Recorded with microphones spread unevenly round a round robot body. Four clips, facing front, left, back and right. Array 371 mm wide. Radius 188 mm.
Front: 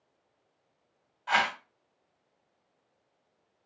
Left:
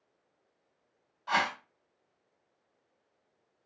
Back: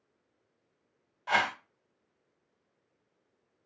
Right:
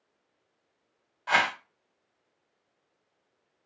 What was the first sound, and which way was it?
A whoosh, 160° right.